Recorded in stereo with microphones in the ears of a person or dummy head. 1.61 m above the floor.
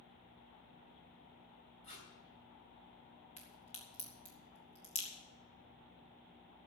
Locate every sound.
1.8 s tape being pulled: 30° left (ahead or behind), 3 m
3.4 s a crack: 30° left (ahead or behind), 2.5 m